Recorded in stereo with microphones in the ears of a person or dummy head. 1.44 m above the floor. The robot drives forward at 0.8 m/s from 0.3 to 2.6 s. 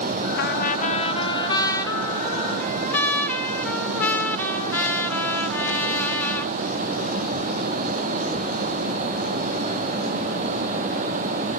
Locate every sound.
0.4 s a trumpet: 60° left (ahead or behind), 0.7 m; by 6.5 s 15° left (ahead or behind), 2 m